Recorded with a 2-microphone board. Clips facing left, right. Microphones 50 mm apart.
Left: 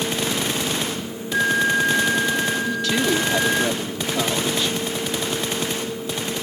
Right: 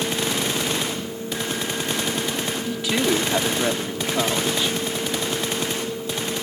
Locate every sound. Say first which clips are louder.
1.3 s a flute: left 10 dB; 85° left
2.7 s a woman speaking: left 1 dB; 15° right (ahead or behind)